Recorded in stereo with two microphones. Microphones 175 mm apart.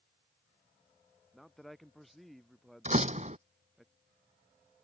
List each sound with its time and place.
1.3 s a man speaking: centre (ahead or behind)
2.9 s a door slam: 40° right (ahead or behind)